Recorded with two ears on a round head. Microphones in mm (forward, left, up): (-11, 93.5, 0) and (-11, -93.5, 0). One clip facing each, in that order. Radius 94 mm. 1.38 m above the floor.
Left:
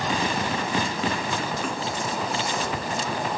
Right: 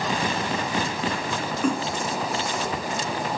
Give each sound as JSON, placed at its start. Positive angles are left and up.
{"t": 1.6, "sound": "a splash", "side_deg": -85}